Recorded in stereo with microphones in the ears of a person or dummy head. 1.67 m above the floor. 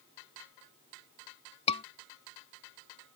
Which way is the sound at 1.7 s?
35° left (ahead or behind).